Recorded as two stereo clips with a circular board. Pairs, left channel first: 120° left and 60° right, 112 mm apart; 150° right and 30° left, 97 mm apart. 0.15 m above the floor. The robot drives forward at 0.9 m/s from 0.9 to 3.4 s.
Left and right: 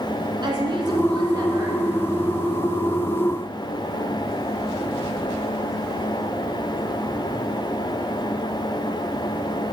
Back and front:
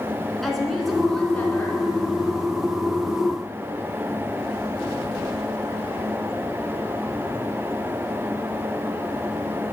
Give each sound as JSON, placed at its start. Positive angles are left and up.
{"t": 0.4, "sound": "a woman speaking", "azimuth_deg": -65, "distance_m": 1.9}